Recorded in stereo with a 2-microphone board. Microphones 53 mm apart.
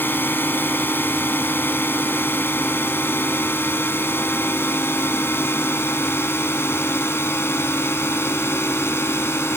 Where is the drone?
40° left (ahead or behind); by 9.6 s 45° left (ahead or behind).